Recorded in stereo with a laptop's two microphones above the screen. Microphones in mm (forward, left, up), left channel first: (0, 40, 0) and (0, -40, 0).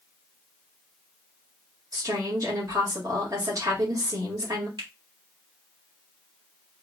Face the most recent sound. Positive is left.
turn(degrees=-70)  # may be behind; listen again after turning